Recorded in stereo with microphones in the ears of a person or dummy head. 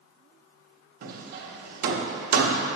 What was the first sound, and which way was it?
Hammering, 50° right (ahead or behind).